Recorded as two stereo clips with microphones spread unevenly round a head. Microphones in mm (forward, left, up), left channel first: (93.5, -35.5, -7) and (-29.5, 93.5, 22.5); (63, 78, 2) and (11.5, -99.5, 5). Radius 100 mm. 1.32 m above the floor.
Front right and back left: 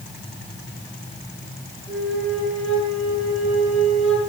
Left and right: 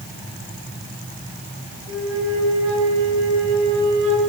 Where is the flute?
140° right, 9.5 m.